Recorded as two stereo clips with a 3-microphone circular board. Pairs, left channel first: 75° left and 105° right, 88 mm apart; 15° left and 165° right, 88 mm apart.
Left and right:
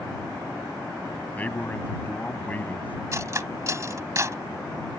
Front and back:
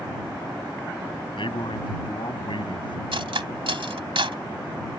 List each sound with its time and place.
1.4 s a man speaking: 5° left
3.1 s cutlery clinking: 155° right